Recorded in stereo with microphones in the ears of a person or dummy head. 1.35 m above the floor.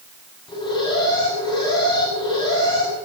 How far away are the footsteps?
I don't hear footsteps.